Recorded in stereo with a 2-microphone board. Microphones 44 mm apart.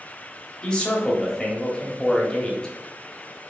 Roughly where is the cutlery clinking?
I don't hear cutlery clinking.